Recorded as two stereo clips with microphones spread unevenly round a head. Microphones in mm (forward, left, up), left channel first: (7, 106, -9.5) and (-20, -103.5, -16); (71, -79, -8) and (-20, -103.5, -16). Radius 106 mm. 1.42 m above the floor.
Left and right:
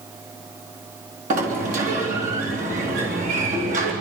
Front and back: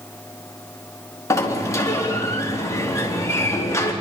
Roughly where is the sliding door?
Ahead right.